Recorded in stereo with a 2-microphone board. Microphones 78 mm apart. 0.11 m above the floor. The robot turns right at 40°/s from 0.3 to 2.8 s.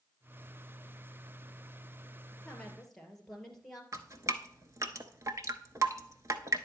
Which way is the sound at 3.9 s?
45° right (ahead or behind).